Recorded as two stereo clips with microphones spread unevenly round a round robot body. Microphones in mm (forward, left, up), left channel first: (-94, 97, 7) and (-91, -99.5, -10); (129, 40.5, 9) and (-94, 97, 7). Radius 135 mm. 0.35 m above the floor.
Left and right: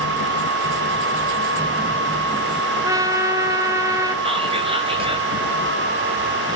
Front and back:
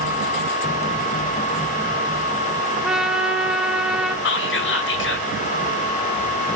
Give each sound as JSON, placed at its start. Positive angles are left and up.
{"t": 2.8, "sound": "a trumpet", "azimuth_deg": -115, "distance_m": 0.9}
{"t": 4.2, "sound": "whispering", "azimuth_deg": -30, "distance_m": 1.7}